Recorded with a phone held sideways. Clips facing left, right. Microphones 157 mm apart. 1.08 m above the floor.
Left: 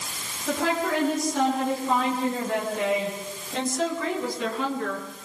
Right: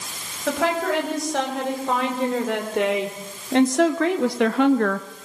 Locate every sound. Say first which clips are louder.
0.5 s a woman speaking: right 3 dB; 85° right, 7 m; by 5.1 s 60° right (ahead or behind), 1.0 m